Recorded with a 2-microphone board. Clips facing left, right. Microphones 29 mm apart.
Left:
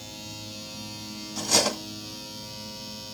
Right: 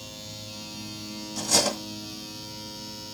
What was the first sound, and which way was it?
Cutlery clinking, 15° left (ahead or behind).